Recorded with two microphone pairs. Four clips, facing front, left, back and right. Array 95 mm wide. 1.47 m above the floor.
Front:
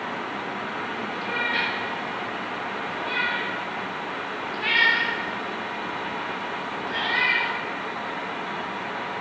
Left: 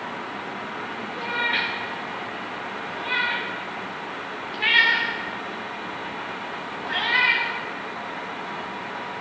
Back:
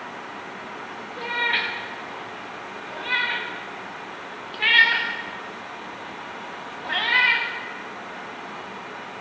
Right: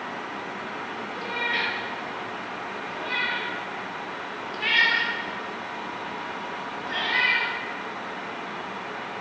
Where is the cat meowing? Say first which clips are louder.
Left 3 dB, back 3 dB; 155° left, 1.3 m.